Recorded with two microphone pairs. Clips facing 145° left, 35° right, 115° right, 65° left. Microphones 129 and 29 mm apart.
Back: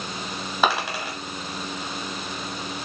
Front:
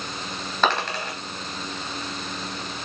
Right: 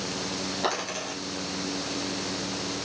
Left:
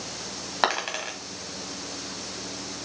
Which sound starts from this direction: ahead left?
A dropped coin, at 0.6 s.